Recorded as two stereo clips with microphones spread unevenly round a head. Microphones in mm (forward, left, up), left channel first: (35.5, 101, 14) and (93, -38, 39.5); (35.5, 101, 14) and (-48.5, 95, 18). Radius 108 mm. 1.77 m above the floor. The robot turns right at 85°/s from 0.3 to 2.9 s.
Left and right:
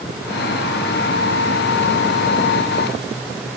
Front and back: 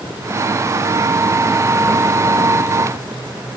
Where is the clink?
No clink in this recording.